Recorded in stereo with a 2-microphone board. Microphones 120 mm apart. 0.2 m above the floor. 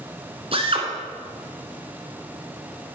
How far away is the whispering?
I don't hear whispering.